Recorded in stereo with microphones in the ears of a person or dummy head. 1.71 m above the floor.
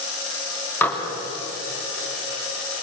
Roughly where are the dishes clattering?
Centre.